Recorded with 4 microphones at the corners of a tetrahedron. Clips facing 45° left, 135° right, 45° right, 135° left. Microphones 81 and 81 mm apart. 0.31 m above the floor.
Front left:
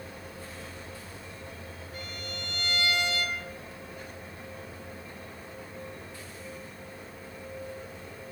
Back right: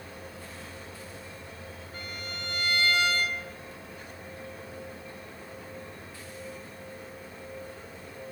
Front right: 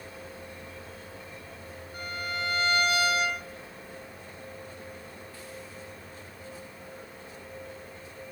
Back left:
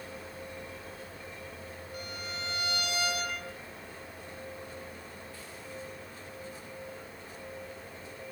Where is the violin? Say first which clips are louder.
Back right 1 dB, front right 7 dB; 90° right, 2.5 m.